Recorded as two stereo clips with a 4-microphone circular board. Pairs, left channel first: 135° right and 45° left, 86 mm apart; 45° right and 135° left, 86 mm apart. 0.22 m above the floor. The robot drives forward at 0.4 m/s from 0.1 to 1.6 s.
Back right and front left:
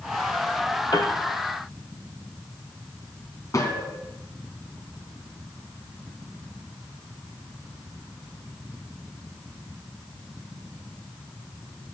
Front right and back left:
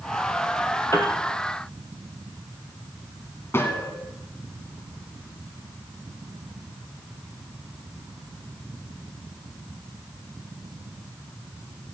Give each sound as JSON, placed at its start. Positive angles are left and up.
{"t": 0.9, "sound": "a piano", "azimuth_deg": -100, "distance_m": 2.0}
{"t": 3.5, "sound": "a gunshot", "azimuth_deg": -100, "distance_m": 2.0}